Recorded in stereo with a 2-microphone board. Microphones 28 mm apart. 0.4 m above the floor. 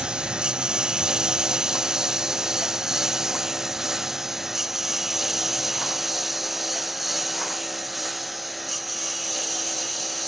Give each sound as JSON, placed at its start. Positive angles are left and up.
{"t": 0.0, "sound": "a lawn mower", "side_deg": -35}